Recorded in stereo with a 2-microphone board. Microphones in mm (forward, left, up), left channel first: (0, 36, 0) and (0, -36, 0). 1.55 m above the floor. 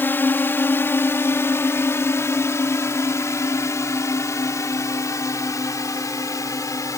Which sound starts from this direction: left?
A drone, at 0.0 s.